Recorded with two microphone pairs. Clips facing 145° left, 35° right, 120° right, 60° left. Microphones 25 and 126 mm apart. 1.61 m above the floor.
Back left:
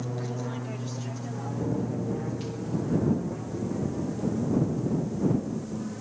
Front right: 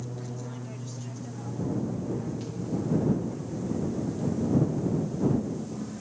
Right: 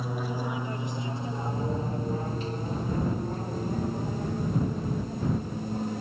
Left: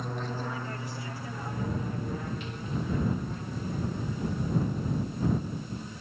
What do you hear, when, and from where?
0.0 s an aircraft: 165° left; by 6.0 s 145° right